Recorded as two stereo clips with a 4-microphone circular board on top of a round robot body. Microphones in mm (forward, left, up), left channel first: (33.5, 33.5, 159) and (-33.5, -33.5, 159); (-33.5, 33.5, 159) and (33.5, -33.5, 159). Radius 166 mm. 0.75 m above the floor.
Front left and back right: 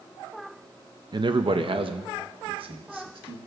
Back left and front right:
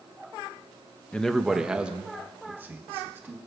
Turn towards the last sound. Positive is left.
turn(degrees=-110)